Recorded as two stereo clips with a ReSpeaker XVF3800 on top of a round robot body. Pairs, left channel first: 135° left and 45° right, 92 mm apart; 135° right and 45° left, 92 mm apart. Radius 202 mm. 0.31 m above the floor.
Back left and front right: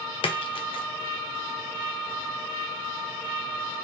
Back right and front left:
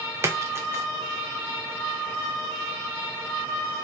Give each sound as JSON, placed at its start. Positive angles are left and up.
{"t": 0.2, "sound": "a splash", "azimuth_deg": 110, "distance_m": 0.7}